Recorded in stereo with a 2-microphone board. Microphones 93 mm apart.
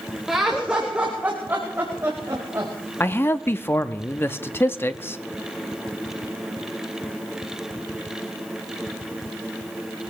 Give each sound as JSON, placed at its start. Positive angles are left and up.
{"t": 0.3, "sound": "laughter", "side_deg": -5, "distance_m": 2.5}
{"t": 3.0, "sound": "a man speaking", "side_deg": 25, "distance_m": 0.6}